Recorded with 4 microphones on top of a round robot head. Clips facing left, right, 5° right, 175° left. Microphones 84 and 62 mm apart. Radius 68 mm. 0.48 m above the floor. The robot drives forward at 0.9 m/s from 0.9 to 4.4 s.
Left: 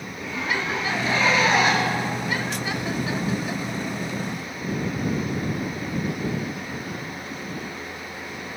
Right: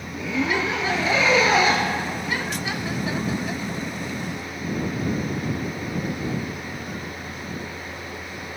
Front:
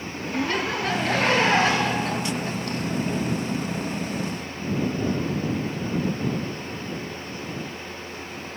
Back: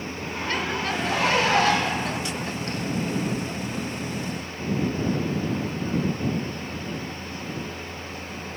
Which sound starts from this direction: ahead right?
A zipper, at 0.1 s.